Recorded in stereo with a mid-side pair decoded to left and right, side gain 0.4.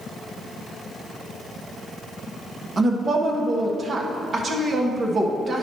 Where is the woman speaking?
45° right, 1.2 m.